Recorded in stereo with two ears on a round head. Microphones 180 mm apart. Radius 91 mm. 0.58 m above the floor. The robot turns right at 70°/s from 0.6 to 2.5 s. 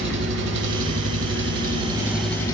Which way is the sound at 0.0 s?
115° right.